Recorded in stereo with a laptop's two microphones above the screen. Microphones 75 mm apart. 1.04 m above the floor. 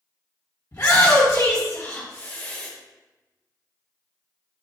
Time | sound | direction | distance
0.7 | a shout | 50° left (ahead or behind) | 1.6 m